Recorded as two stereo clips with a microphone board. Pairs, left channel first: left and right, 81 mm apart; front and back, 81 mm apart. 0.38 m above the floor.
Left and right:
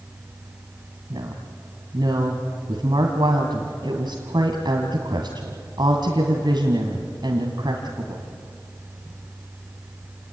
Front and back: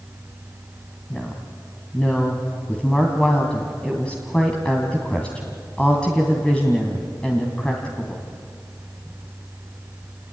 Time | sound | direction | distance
1.1 | a woman speaking | 75° right | 2.5 m